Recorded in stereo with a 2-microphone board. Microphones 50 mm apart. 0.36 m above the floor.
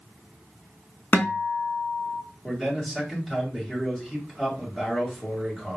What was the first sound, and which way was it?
A guitar, 40° left (ahead or behind).